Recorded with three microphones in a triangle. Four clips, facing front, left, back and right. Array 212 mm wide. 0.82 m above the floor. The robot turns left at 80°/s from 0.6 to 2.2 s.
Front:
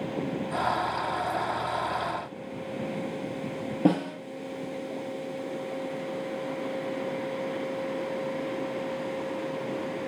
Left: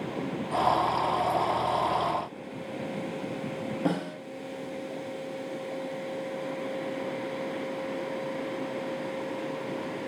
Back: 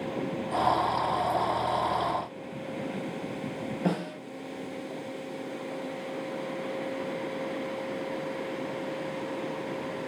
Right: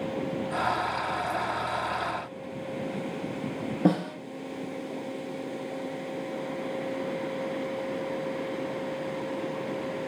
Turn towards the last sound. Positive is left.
turn(degrees=-45)